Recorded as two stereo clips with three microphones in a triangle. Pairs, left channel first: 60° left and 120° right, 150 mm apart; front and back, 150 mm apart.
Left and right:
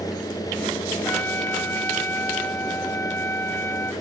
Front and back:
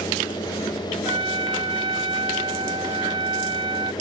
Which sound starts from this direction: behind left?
A trumpet, at 1.1 s.